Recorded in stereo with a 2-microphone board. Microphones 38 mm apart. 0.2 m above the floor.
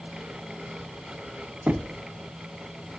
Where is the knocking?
40° right (ahead or behind), 1.1 m.